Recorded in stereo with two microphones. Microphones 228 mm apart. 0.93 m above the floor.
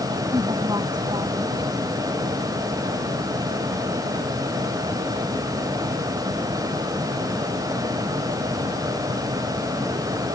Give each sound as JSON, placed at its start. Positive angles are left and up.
{"t": 0.3, "sound": "a woman speaking", "side_deg": -20}